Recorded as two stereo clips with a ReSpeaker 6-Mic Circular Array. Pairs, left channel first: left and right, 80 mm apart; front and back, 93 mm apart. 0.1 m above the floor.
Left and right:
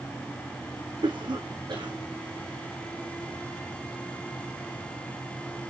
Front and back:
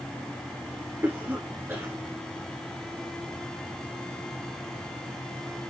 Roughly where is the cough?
Behind right.